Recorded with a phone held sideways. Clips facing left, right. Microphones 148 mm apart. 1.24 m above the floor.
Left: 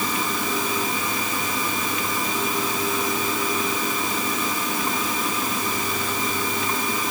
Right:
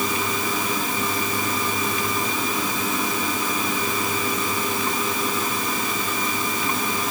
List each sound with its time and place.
Only background noise.